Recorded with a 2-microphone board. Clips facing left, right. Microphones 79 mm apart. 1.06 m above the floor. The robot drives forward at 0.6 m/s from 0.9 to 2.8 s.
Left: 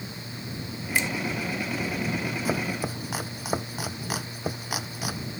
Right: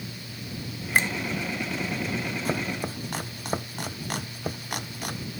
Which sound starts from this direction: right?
A finger snap, at 0.9 s.